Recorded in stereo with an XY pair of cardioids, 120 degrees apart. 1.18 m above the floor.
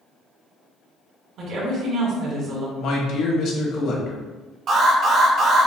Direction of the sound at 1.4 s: 70° right.